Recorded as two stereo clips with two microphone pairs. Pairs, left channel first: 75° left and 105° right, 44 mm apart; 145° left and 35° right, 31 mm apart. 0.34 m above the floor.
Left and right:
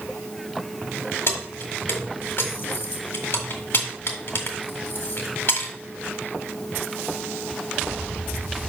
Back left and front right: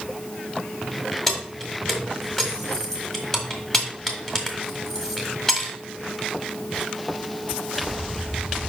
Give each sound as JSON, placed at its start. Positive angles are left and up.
{"t": 1.3, "sound": "keys jangling", "azimuth_deg": 70, "distance_m": 1.6}